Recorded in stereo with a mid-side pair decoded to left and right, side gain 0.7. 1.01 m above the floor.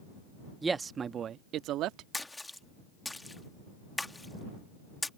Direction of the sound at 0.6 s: 20° right.